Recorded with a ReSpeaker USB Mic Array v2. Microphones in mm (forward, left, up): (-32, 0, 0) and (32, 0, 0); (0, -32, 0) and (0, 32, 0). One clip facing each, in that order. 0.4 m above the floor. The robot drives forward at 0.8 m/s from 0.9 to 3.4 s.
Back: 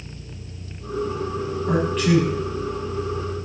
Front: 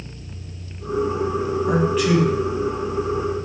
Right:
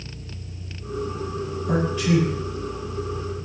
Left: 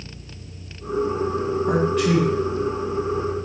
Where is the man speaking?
80° left, 3 m; by 2.3 s 90° left, 3 m.